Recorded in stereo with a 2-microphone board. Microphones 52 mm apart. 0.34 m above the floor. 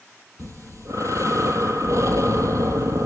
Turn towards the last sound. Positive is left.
turn(degrees=-75)  # may be behind; listen again after turning